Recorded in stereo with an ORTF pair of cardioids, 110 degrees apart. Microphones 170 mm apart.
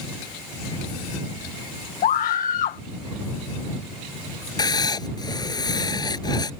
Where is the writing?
25° left.